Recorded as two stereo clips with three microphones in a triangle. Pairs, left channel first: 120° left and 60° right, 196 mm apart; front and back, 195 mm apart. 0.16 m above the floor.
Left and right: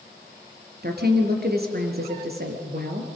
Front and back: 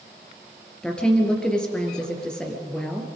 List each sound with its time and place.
0.8 s a woman speaking: 85° right, 3 m